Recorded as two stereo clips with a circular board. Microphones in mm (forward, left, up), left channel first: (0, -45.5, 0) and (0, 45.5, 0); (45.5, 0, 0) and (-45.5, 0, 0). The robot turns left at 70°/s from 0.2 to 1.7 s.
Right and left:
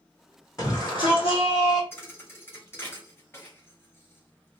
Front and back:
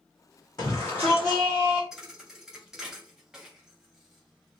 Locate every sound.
0.6 s a shout: 35° right, 1.7 m; by 1.8 s 115° right, 1.7 m
1.9 s a thud: 105° right, 0.9 m